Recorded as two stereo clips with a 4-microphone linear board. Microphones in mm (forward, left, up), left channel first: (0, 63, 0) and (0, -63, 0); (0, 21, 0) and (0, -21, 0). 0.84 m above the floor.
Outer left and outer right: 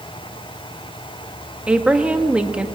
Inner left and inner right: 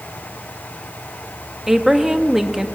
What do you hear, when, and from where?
1.7 s a woman speaking: 10° right (ahead or behind), 1.2 m